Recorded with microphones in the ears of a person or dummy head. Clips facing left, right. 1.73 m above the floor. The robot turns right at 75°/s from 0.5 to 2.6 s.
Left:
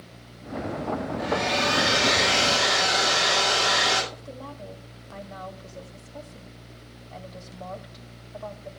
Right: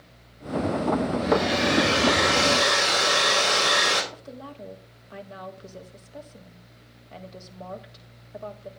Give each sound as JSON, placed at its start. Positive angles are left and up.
{"t": 1.2, "sound": "a hair dryer", "azimuth_deg": 170, "distance_m": 3.5}
{"t": 4.1, "sound": "a woman speaking", "side_deg": -30, "distance_m": 1.8}